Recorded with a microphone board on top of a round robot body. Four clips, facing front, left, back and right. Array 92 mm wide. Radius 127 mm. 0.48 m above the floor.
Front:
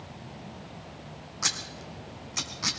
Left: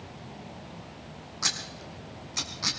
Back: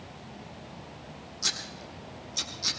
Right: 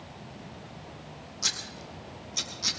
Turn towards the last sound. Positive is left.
turn(degrees=40)